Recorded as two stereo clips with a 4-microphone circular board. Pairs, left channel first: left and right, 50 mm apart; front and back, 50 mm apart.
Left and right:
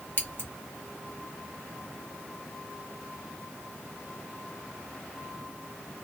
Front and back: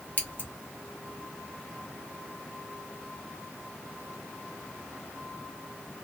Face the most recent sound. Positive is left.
turn(degrees=50)